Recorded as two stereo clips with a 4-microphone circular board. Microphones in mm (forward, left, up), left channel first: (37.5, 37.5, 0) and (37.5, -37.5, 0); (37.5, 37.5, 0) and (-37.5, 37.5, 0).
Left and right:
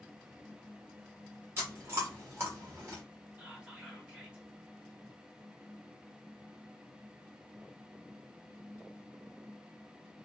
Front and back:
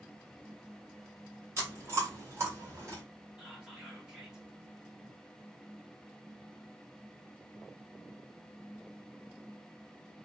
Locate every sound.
1.6 s chewing: 135° right, 2.0 m
3.4 s whispering: 125° right, 1.1 m